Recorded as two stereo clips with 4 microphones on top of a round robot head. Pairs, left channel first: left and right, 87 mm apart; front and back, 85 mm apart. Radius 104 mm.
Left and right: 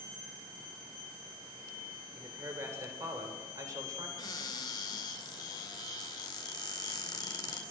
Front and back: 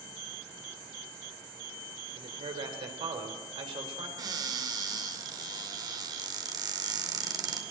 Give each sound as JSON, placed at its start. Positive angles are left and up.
{"t": 2.1, "sound": "a man speaking", "azimuth_deg": -160, "distance_m": 4.0}
{"t": 4.2, "sound": "a cupboard door", "azimuth_deg": 140, "distance_m": 2.5}